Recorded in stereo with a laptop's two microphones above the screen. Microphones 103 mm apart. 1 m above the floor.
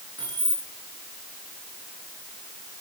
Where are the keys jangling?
40° right (ahead or behind), 10 m.